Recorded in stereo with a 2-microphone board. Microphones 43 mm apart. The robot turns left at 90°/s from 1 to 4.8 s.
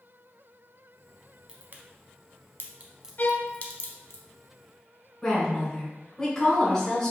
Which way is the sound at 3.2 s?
135° left.